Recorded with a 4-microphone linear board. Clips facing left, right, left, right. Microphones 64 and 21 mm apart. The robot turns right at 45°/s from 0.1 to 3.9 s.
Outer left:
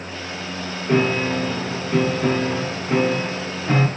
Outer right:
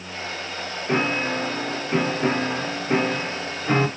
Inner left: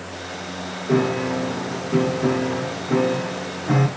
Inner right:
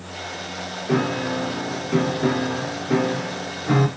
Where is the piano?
10° right (ahead or behind), 0.6 m; by 3.9 s 5° right (ahead or behind), 0.6 m.